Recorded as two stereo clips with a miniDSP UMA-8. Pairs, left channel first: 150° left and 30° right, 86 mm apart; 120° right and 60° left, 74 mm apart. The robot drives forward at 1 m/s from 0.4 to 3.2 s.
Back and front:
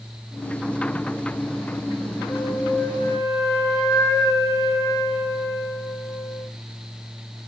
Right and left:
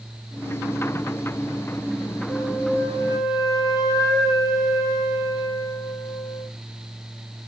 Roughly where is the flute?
Behind right.